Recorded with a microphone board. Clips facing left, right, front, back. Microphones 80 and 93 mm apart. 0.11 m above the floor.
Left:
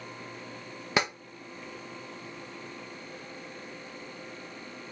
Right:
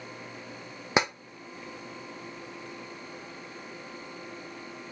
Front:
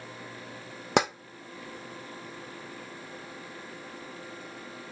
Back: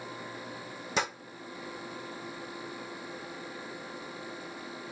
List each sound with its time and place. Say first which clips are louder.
1.0 s tapping: right 2 dB, front 7 dB; 20° right, 1.3 m